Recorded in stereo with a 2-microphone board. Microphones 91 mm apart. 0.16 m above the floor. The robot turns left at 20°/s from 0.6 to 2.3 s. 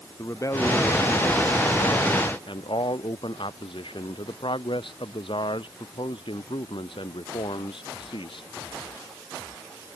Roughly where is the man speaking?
Behind left.